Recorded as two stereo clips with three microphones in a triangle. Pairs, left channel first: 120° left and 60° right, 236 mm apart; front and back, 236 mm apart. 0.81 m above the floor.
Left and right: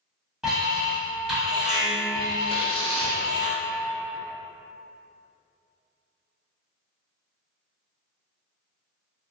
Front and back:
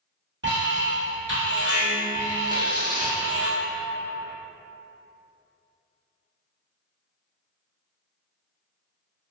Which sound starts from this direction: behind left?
Tearing paper, at 2.5 s.